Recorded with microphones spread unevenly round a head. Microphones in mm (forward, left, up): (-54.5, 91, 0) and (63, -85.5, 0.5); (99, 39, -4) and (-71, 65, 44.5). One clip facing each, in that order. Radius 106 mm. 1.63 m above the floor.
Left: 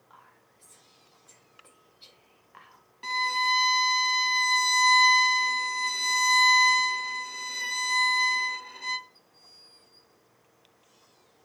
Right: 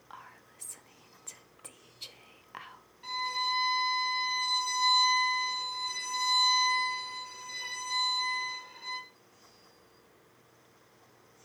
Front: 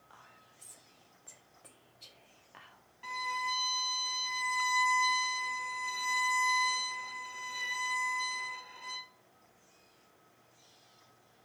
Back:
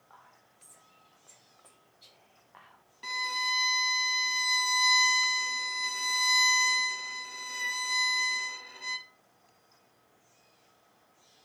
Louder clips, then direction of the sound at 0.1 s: Right 8 dB, back 2 dB; 80° right.